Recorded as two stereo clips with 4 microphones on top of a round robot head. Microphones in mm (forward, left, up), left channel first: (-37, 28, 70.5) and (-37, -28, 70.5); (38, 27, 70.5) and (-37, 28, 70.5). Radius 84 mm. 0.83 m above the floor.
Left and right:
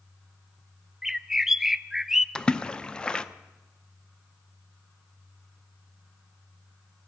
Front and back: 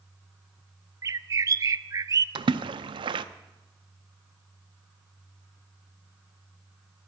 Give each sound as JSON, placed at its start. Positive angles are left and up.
{"t": 1.0, "sound": "a bird", "azimuth_deg": -170, "distance_m": 0.5}
{"t": 2.4, "sound": "a splash", "azimuth_deg": 165, "distance_m": 0.6}